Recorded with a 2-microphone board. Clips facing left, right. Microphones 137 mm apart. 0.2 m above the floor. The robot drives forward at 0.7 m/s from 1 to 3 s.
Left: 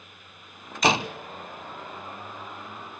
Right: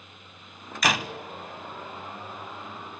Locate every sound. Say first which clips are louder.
0.8 s a door slam: left 4 dB; 25° left (ahead or behind), 0.9 m